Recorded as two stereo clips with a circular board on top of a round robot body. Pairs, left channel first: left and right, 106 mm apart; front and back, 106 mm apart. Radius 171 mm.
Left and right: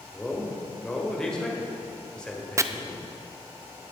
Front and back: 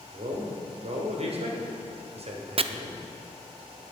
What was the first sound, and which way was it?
A man speaking, 170° left.